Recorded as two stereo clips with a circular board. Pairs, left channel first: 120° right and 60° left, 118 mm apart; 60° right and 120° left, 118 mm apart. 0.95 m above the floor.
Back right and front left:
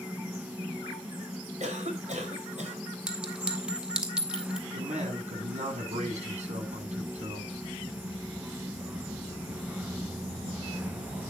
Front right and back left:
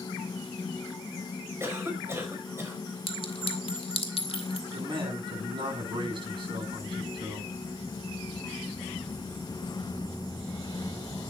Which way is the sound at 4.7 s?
75° left.